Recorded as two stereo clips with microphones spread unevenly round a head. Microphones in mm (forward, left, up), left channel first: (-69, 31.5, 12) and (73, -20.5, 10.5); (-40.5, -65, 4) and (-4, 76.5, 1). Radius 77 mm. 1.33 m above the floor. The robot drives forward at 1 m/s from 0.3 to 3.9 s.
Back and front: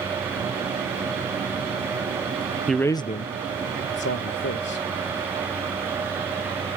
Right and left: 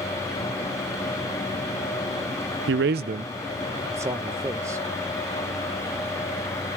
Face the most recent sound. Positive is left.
turn(degrees=145)